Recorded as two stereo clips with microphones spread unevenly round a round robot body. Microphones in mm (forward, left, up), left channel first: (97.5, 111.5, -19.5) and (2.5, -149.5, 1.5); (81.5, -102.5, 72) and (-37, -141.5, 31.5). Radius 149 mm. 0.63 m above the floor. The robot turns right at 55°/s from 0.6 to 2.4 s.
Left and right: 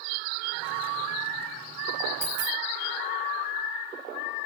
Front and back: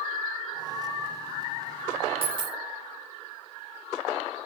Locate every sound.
2.2 s a dropped coin: 115° right, 1.3 m; by 2.6 s 105° right, 1.3 m